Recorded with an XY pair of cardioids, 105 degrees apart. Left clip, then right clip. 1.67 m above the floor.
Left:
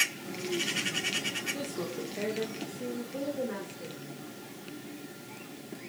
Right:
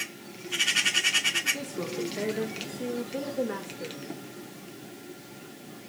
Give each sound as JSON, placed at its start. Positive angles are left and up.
{"t": 1.5, "sound": "a woman speaking", "azimuth_deg": -10, "distance_m": 1.6}